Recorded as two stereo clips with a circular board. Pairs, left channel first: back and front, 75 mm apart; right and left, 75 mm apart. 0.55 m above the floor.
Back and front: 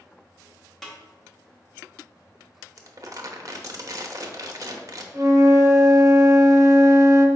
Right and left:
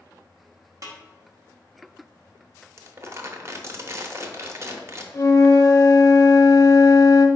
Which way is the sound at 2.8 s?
40° left.